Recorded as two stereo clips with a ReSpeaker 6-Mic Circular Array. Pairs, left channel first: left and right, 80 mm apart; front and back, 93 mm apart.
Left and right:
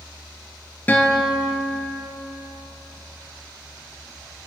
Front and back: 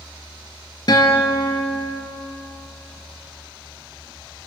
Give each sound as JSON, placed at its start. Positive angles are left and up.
{"t": 0.9, "sound": "a guitar", "azimuth_deg": 25, "distance_m": 1.6}